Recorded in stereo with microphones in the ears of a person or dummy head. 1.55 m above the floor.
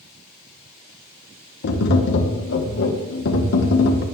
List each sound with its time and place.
1.6 s tapping: 60° left (ahead or behind), 1.4 m